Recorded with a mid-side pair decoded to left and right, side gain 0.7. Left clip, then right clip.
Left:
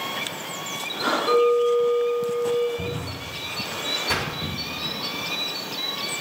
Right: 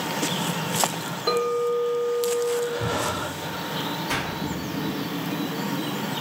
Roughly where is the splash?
Ahead.